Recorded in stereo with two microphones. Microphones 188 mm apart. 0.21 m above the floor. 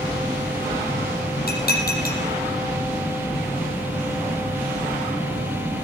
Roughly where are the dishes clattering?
Left.